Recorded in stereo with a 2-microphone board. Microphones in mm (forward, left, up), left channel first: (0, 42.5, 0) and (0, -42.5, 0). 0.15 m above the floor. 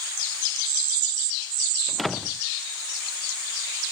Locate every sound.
1.9 s a door slam: centre (ahead or behind)